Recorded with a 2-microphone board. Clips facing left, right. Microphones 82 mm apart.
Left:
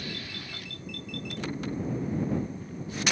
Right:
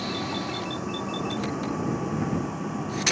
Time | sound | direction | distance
0.0 | a vehicle | 85° right | ?